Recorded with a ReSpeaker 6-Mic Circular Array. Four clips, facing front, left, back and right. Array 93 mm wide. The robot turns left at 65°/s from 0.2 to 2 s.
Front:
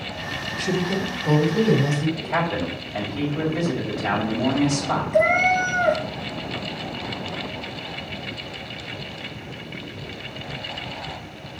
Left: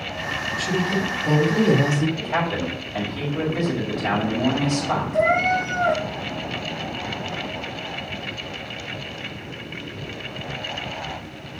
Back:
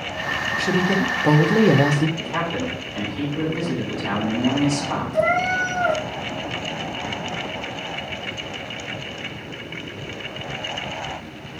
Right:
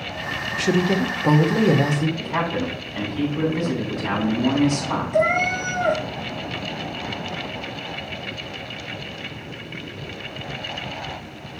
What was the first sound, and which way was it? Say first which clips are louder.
A woman speaking: right 4 dB, back 3 dB; 100° right.